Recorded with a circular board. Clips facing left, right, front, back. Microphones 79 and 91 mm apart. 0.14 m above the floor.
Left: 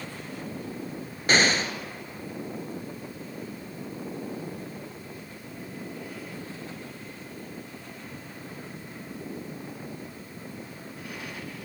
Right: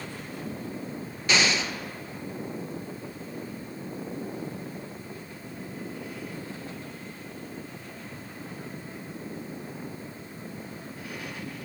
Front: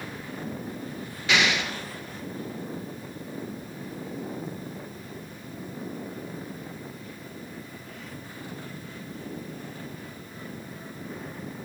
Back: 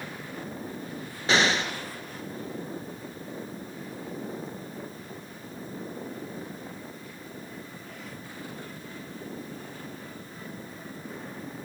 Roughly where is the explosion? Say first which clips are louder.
Left 2 dB, back 1 dB; behind left.